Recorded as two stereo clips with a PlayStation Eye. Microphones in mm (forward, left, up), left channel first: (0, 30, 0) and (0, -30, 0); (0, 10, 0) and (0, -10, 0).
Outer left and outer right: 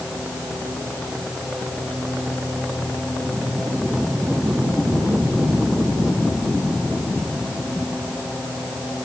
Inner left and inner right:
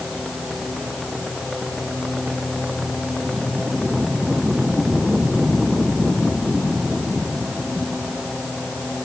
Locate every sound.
Only background noise.